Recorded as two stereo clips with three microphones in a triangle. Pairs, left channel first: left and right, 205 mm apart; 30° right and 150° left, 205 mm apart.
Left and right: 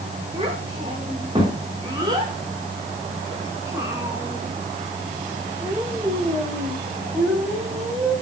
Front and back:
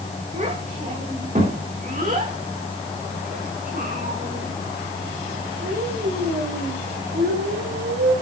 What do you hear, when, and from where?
0.3 s a child speaking: 155° right, 9.5 m; by 8.1 s 175° right, 12.5 m